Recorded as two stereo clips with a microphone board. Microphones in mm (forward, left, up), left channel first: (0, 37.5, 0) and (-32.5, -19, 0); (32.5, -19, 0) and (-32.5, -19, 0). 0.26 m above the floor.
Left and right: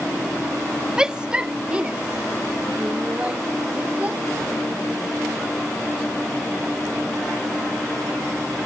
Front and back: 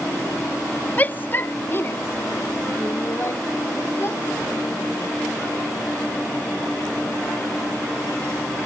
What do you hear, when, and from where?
1.0 s a shout: 45° right; by 4.2 s 50° right